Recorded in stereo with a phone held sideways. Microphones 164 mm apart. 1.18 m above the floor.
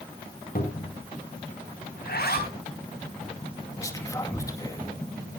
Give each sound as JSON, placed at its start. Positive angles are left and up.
{"t": 0.6, "sound": "a cupboard door", "side_deg": 65, "distance_m": 3.0}
{"t": 2.0, "sound": "a zipper", "side_deg": 75, "distance_m": 3.0}
{"t": 3.8, "sound": "whispering", "side_deg": 20, "distance_m": 2.0}